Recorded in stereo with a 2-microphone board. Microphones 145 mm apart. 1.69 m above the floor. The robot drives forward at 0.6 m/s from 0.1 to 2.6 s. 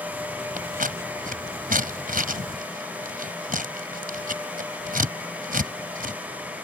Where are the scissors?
70° right (ahead or behind); by 6.2 s 75° right (ahead or behind).